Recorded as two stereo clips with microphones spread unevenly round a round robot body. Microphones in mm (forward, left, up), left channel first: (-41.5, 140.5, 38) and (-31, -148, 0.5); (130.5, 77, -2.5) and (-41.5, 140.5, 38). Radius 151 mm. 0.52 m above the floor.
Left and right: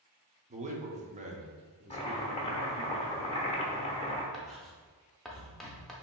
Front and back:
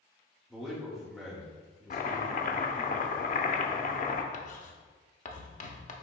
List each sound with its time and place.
0.5 s a man speaking: 95° right, 0.8 m
1.9 s chopping: 15° left, 0.6 m
4.3 s writing: straight ahead, 0.6 m